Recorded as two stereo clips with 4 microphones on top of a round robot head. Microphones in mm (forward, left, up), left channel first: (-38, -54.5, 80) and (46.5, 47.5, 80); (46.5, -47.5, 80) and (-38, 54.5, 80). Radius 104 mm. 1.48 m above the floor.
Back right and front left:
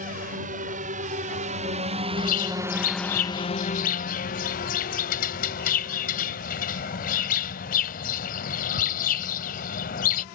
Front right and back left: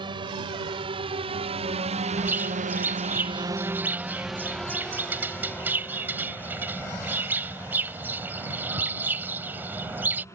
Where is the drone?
75° left; by 10.3 s 120° right.